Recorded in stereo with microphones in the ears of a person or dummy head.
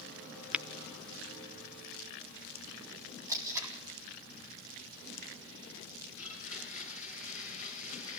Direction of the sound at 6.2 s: 45° left (ahead or behind).